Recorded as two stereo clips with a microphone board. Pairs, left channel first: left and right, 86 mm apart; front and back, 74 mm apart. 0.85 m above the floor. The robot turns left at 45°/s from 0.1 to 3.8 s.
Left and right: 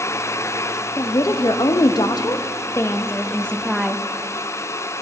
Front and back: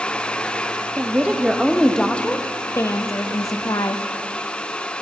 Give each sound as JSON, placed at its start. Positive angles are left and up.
{"t": 1.0, "sound": "a woman speaking", "azimuth_deg": 125, "distance_m": 0.6}